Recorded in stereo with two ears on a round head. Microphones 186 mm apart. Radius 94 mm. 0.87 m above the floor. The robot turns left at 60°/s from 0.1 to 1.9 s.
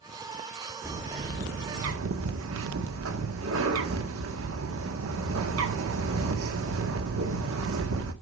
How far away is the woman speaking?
No woman speaking in this recording.